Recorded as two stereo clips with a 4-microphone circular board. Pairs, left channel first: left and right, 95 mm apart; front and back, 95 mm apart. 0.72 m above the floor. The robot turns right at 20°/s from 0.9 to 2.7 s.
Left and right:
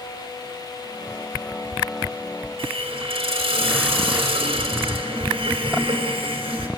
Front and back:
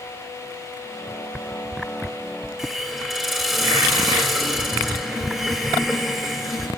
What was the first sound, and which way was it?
A hiss, 90° right.